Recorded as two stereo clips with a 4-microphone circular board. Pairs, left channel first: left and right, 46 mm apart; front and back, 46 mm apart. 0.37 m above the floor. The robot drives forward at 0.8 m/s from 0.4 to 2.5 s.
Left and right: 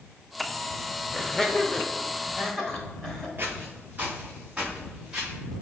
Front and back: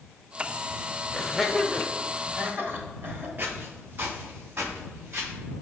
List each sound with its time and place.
1.1 s laughter: 30° left, 0.8 m; by 3.3 s 170° left, 1.2 m
3.4 s footsteps: 135° right, 3 m; by 5.3 s 160° right, 4.5 m